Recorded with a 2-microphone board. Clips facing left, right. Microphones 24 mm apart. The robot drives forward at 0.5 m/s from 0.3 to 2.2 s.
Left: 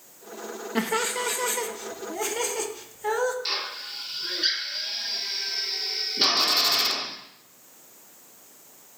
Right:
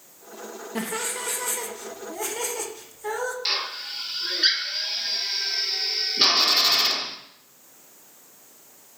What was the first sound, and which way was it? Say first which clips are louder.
Laughter: left 4 dB; 35° left (ahead or behind).